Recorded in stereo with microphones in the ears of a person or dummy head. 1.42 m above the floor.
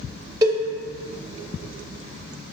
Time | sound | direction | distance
0.4 | a cowbell | 20° right (ahead or behind) | 0.6 m